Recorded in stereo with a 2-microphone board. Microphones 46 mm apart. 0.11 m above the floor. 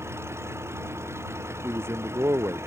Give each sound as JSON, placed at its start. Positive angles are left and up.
{"t": 0.0, "sound": "an engine running", "side_deg": -70}
{"t": 1.6, "sound": "a man speaking", "side_deg": -70}